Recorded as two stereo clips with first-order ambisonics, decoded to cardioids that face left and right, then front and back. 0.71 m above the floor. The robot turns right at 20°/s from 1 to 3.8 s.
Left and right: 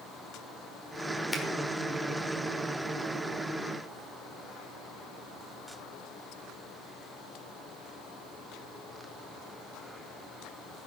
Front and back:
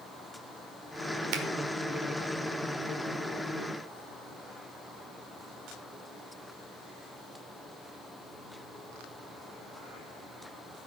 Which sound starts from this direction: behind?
A finger snap, at 1.3 s.